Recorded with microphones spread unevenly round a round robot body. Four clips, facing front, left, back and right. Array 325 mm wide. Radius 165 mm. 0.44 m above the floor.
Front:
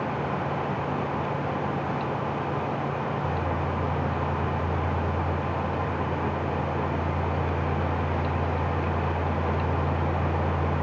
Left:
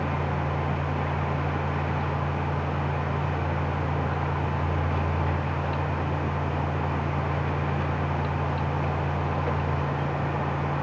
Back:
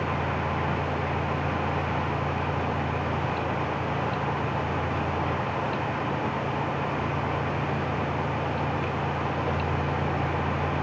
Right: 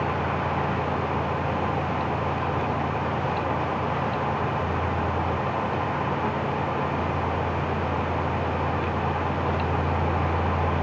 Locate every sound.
Only background noise.